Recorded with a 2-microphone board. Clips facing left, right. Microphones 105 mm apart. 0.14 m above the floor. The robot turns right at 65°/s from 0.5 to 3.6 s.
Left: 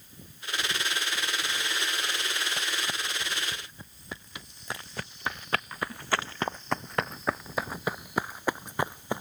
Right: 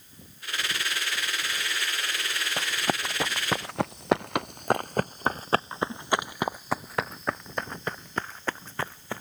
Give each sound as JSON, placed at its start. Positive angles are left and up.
{"t": 2.6, "sound": "running footsteps", "side_deg": -30}